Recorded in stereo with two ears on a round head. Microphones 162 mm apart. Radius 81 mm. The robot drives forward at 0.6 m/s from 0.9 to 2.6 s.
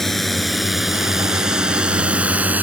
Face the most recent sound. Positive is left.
turn(degrees=-10)  # may be behind; listen again after turning